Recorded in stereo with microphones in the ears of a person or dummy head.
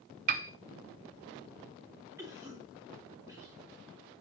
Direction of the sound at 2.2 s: 15° right (ahead or behind).